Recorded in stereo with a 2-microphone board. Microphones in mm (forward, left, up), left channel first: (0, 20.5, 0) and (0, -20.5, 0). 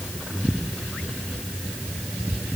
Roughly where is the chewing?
No chewing in this recording.